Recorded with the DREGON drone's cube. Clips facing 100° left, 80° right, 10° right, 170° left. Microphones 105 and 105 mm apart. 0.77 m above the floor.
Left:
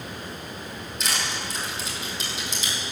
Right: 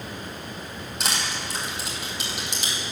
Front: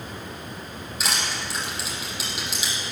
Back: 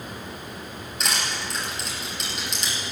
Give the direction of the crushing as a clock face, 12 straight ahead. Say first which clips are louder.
Even, even; 3 o'clock.